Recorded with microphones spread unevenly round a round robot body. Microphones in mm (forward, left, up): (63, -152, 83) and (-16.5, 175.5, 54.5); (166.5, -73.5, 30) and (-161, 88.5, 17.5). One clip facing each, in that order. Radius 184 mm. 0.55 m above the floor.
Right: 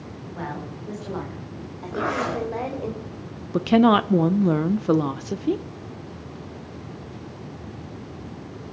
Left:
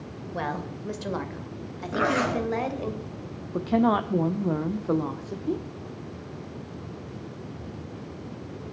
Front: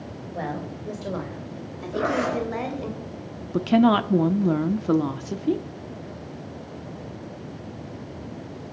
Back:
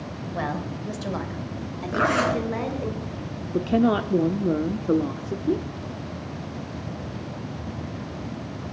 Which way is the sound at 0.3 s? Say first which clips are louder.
Left 1 dB, back 1 dB; 100° left.